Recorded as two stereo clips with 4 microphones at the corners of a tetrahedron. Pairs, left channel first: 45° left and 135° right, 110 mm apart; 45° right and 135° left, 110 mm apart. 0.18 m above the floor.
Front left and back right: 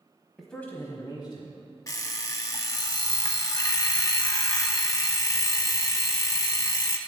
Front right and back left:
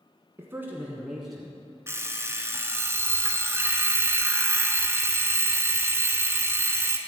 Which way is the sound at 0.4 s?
135° left.